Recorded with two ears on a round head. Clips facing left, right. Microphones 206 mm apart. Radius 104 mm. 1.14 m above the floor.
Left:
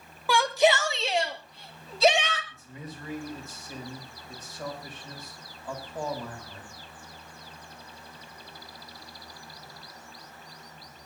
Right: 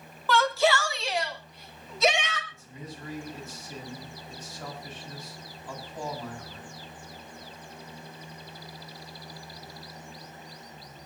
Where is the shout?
10° left (ahead or behind), 1.4 m; by 2.4 s 30° left (ahead or behind), 4 m.